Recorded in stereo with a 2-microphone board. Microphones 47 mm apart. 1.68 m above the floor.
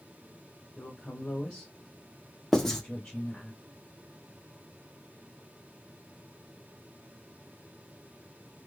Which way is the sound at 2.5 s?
10° left (ahead or behind).